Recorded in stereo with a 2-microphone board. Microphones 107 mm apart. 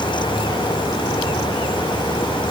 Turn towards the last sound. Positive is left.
No sound to turn to.